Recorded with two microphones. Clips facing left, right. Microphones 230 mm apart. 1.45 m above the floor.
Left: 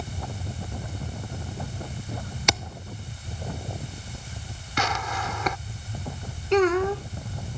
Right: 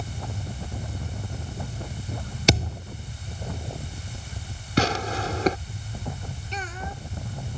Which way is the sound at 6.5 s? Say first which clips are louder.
Left 20 dB; 75° left (ahead or behind).